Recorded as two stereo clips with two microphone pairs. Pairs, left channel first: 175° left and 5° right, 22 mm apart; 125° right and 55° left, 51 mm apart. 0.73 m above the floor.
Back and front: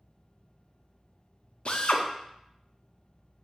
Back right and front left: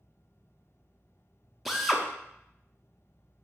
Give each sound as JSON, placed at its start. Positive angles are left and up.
{"t": 1.6, "sound": "a drill", "azimuth_deg": 145, "distance_m": 0.5}